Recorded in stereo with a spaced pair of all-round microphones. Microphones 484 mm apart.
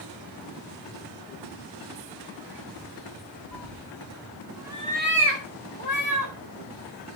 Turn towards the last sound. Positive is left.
turn(degrees=-40)  # may be behind; listen again after turning